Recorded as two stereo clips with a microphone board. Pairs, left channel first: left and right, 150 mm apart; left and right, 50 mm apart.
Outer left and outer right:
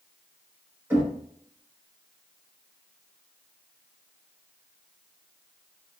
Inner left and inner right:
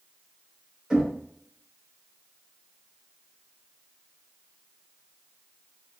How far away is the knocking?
About 1.2 m.